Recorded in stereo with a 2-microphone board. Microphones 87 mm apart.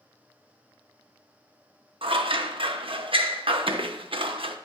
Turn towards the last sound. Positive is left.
turn(degrees=-85)